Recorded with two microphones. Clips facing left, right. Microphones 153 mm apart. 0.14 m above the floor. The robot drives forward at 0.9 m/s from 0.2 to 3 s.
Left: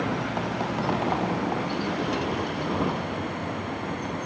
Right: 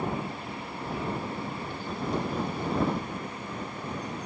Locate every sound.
0.0 s a vehicle: 80° left; by 4.3 s 65° left (ahead or behind)